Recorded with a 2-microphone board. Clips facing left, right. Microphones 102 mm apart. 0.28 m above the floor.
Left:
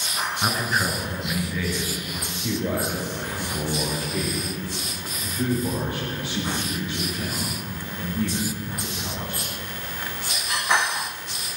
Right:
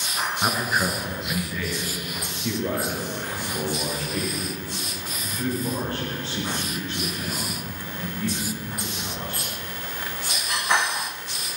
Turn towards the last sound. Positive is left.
turn(degrees=15)  # may be behind; listen again after turning